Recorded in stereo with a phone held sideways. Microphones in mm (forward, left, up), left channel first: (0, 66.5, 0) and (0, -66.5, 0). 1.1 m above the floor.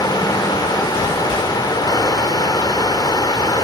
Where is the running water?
30° left (ahead or behind), 1.3 m.